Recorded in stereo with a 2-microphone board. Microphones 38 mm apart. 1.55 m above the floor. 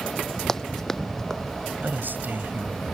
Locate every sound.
0.5 s running footsteps: 15° left (ahead or behind)
1.8 s a man speaking: 55° right (ahead or behind)